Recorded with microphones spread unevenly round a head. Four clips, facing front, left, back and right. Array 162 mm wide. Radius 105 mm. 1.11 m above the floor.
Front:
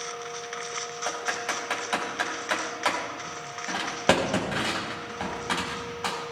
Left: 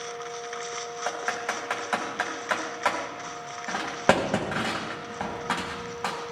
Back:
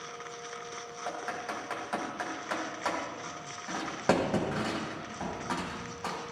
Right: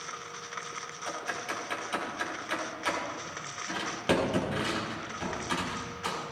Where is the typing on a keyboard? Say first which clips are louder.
Left 5 dB, front 4 dB; 55° left, 4.5 m.